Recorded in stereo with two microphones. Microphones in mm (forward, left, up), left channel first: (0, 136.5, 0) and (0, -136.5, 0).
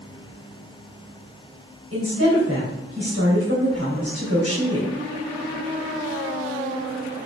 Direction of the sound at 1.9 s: 60° right (ahead or behind).